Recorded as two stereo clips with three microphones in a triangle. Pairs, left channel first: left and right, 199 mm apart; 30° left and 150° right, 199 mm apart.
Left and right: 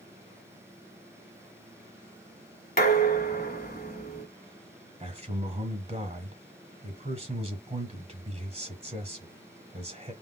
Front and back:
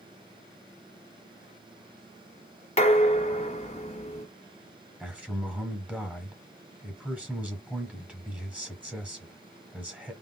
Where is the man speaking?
75° right, 1.2 m.